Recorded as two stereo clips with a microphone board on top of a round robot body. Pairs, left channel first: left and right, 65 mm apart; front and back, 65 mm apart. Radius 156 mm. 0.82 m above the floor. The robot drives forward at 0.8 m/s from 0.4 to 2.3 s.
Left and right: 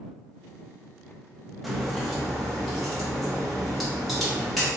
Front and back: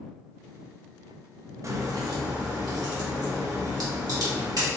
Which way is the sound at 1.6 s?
Straight behind.